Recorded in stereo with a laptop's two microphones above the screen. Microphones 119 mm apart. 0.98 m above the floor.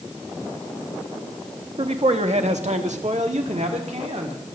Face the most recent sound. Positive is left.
turn(degrees=-65)  # may be behind; listen again after turning